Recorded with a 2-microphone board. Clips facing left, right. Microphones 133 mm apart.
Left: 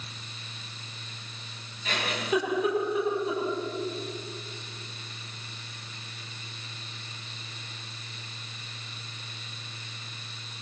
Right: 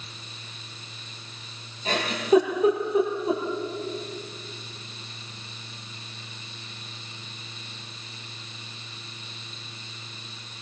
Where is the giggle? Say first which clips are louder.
Right 8 dB; 30° right (ahead or behind), 8.5 m.